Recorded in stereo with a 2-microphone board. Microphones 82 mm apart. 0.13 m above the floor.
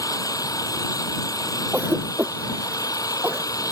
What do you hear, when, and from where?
0.0 s an engine running: 45° left (ahead or behind)
1.7 s a cough: 20° right (ahead or behind)